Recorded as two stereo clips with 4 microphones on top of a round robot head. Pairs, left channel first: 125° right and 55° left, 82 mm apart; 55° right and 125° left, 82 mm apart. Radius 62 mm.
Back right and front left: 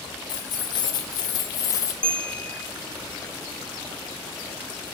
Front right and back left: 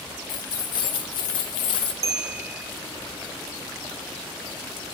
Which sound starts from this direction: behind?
A bell, at 2.0 s.